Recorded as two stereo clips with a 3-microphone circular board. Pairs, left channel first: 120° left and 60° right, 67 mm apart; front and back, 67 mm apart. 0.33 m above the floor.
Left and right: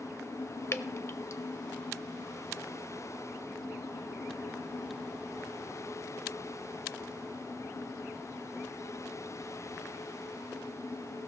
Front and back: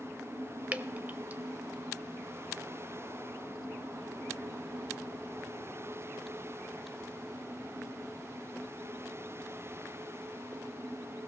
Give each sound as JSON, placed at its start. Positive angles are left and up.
{"t": 0.7, "sound": "dripping", "azimuth_deg": 130, "distance_m": 0.5}